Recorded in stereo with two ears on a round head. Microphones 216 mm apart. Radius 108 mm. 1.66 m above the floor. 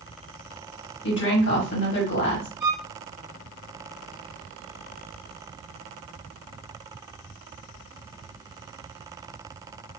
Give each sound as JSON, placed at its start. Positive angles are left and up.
{"t": 1.0, "sound": "a woman speaking", "side_deg": 55, "distance_m": 1.2}
{"t": 2.6, "sound": "a violin", "side_deg": -15, "distance_m": 1.4}